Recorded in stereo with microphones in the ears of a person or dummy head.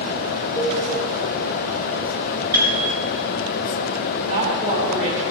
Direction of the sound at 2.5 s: 20° right (ahead or behind).